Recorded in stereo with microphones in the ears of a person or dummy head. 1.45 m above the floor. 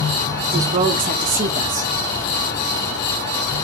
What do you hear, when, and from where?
0.5 s a woman speaking: 40° right (ahead or behind), 1.1 m